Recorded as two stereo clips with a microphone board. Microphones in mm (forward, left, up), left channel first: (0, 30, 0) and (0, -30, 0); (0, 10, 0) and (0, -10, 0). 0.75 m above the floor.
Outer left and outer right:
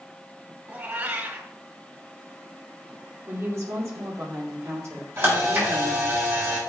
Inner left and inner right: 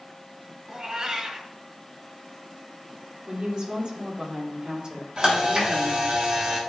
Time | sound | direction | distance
0.7 | a cat meowing | 30° right (ahead or behind) | 1.5 m
3.3 | a woman speaking | 50° right (ahead or behind) | 2.5 m
5.2 | a camera shutter | 40° right (ahead or behind) | 3 m